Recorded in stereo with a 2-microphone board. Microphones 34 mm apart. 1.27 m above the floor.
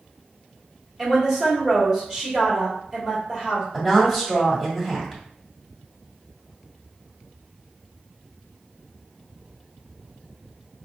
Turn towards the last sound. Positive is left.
turn(degrees=-10)  # may be behind; listen again after turning